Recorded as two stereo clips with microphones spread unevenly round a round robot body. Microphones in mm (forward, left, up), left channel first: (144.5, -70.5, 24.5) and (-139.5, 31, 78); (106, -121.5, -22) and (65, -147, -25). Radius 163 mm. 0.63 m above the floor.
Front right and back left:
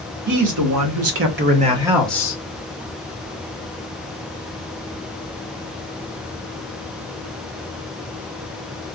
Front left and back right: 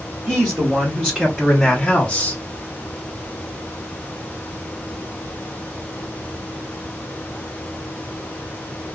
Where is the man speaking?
170° left, 1.6 m; by 2.4 s 15° left, 1.1 m.